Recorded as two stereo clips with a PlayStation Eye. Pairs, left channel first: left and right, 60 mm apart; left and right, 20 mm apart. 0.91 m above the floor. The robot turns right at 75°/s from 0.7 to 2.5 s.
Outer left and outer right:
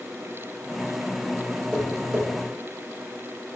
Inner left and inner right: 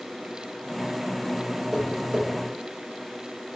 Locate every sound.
1.7 s tapping: 25° right (ahead or behind), 3 m; by 2.3 s 60° right (ahead or behind), 3 m